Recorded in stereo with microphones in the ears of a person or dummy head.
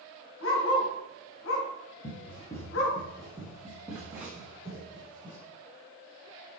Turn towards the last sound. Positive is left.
turn(degrees=-20)  # may be behind; listen again after turning